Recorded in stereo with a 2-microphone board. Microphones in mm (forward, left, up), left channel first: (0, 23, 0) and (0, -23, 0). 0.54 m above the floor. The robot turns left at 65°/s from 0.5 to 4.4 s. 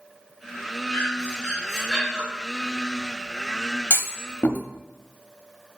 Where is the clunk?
65° left (ahead or behind), 0.5 m; by 4.6 s 40° left (ahead or behind), 0.5 m.